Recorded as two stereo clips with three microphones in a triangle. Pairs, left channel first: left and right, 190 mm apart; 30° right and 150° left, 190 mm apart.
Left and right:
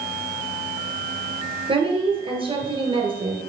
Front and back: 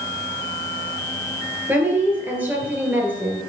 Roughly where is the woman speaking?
Behind right.